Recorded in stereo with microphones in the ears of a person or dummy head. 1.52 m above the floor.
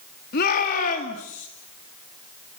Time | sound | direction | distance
0.3 | a shout | 50° left (ahead or behind) | 3.5 m